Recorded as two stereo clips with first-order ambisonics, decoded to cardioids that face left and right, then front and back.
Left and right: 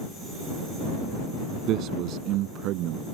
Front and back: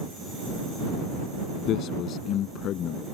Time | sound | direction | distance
1.7 | a man speaking | 45° right | ?